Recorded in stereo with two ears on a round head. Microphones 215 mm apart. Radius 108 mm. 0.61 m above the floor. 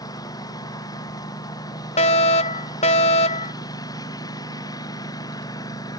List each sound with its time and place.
0.0 s a lawn mower: 15° left (ahead or behind)
2.0 s a fire alarm: 30° left (ahead or behind)